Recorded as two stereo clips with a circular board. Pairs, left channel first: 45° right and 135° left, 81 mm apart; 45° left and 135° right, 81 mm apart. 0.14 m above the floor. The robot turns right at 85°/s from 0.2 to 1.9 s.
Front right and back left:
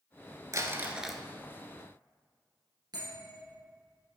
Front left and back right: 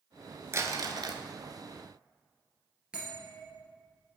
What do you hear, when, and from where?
0.5 s crumpling: 175° left, 0.7 m; by 1.2 s 125° right, 0.7 m
2.9 s a bell: 150° left, 3 m